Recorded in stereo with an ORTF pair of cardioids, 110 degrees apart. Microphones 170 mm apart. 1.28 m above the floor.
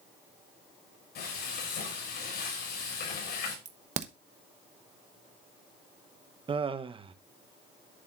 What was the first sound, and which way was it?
Frying, 65° left.